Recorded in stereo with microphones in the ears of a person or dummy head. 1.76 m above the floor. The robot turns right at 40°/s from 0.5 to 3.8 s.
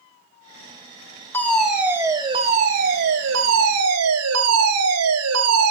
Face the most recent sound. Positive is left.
turn(degrees=-95)